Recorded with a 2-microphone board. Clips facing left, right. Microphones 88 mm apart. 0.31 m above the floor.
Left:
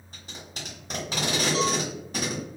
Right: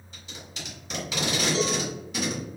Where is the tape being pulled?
40° left (ahead or behind), 1.1 m.